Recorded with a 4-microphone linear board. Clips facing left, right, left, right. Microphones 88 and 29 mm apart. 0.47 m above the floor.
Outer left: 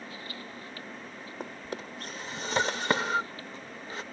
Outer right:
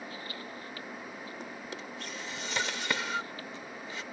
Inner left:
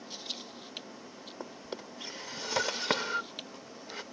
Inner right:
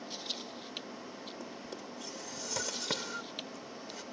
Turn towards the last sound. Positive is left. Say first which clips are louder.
# outer left 3 dB, inner left 2 dB
turn(degrees=40)  # may be behind; listen again after turning